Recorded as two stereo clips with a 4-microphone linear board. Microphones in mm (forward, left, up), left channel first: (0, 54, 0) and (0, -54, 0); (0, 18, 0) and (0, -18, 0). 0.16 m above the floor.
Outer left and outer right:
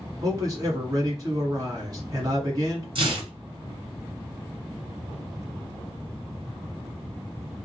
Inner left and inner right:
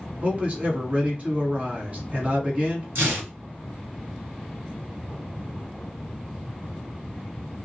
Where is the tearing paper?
55° right (ahead or behind), 2.0 m.